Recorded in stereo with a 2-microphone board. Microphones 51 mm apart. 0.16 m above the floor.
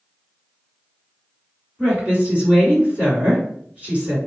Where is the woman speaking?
25° right (ahead or behind), 2.0 m.